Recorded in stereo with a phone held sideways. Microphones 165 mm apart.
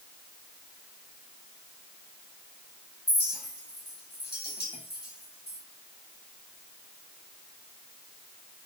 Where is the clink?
80° left, 7 m.